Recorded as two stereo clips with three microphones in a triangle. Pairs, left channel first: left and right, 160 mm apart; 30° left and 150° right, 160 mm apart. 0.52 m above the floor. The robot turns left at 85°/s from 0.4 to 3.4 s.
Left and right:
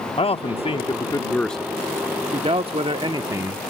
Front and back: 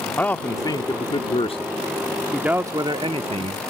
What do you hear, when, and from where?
0.2 s a man speaking: 100° left; by 3.6 s 155° right